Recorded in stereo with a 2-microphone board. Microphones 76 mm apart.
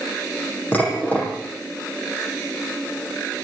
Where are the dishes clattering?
20° left (ahead or behind), 8 m.